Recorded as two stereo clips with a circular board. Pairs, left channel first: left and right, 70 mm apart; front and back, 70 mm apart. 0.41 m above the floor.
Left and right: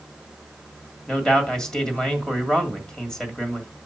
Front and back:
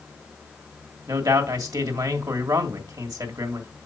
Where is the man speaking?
165° left, 1.9 m.